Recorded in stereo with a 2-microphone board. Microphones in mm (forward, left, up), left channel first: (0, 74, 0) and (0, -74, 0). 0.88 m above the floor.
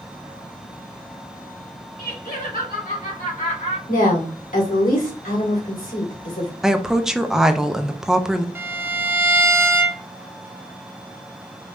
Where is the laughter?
75° left (ahead or behind), 1.5 m; by 3.8 s 60° left (ahead or behind), 2.5 m.